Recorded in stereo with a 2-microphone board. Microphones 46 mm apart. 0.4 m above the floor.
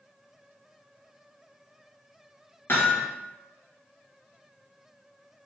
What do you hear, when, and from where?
2.7 s hammering: 55° left (ahead or behind), 2.5 m